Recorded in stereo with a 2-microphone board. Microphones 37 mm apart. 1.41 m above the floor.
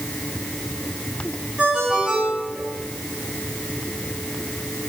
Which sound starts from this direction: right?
A ringtone, at 1.6 s.